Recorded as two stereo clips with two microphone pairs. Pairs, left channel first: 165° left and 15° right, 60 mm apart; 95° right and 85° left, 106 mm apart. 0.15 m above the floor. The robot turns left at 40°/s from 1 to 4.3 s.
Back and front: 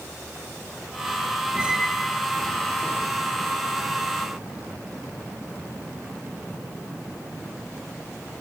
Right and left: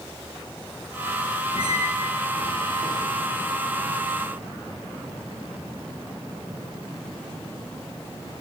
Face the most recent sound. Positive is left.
turn(degrees=165)